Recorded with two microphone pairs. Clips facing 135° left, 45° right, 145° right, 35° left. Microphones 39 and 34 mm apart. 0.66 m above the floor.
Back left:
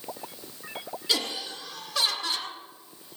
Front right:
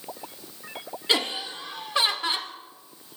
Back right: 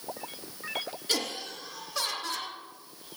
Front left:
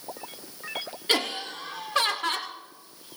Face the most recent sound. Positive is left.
turn(degrees=10)